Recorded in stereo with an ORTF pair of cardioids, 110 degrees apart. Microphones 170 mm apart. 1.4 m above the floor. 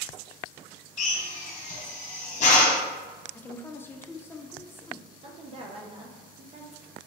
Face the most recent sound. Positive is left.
turn(degrees=-35)